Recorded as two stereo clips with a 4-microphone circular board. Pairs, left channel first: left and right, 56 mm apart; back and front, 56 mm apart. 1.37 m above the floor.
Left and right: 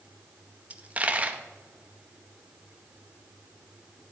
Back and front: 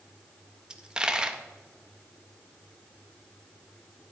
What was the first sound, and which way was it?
A dropped coin, 65° right.